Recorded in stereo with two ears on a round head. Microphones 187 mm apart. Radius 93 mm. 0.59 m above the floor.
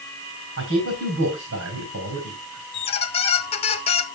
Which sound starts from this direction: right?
A man speaking, at 0.6 s.